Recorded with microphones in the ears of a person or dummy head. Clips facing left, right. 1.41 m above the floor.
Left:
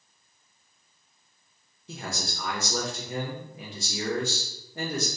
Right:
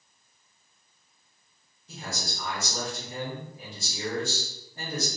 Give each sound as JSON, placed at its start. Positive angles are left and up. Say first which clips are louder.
{"t": 1.9, "sound": "a man speaking", "louder": "left 2 dB", "side_deg": 45, "distance_m": 0.5}